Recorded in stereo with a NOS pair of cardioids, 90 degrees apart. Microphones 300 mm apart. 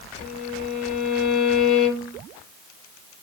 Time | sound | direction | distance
0.2 | a violin | 50° left | 2.5 m